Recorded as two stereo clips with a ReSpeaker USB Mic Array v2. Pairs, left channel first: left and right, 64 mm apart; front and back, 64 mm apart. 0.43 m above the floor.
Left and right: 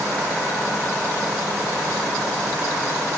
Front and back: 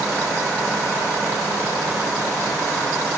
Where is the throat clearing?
I don't hear throat clearing.